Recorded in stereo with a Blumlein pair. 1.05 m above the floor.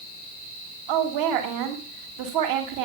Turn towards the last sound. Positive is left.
turn(degrees=-50)